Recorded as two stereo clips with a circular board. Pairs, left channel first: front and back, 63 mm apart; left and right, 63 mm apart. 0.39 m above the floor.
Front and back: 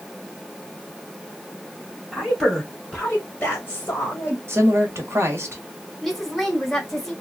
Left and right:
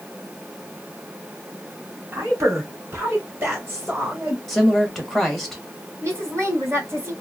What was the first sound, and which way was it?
A woman speaking, 95° right.